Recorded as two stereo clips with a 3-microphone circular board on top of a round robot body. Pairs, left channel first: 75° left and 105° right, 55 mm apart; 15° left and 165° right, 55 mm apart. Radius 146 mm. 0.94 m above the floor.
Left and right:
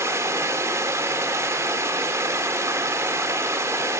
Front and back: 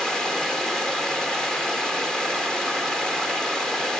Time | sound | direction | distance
0.0 | running water | 65° right | 1.6 m